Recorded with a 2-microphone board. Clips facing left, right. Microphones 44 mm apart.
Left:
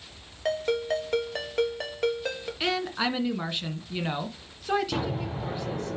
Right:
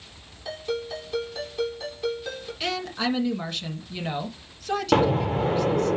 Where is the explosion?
55° right (ahead or behind), 0.9 m.